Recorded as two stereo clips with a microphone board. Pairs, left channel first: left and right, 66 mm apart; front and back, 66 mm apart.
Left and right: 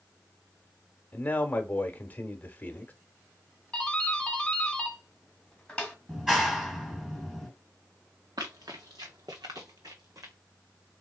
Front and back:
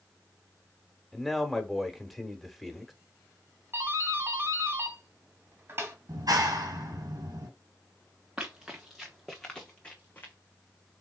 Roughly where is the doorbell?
Behind.